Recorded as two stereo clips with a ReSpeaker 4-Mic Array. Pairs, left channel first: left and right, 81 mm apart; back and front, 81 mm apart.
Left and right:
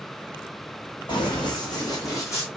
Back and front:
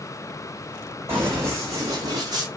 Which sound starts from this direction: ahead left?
Running footsteps, at 1.1 s.